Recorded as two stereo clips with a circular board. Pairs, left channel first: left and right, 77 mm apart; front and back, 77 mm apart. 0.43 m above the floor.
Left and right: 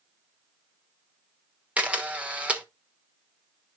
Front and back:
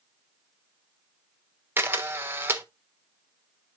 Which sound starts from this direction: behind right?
A camera shutter, at 1.8 s.